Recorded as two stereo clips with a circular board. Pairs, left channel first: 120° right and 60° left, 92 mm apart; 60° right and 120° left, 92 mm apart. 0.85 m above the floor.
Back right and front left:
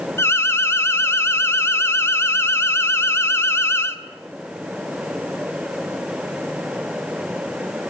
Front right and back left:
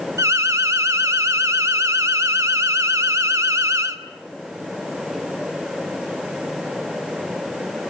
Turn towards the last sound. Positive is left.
turn(degrees=180)